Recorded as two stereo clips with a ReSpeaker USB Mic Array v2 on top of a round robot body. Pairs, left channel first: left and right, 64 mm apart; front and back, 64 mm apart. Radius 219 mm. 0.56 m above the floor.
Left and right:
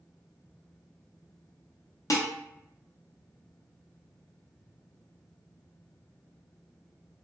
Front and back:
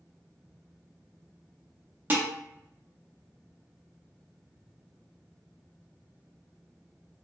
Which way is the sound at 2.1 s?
120° left.